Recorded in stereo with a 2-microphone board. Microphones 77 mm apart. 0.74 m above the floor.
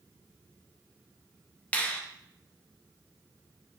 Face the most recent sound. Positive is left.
turn(degrees=20)  # may be behind; listen again after turning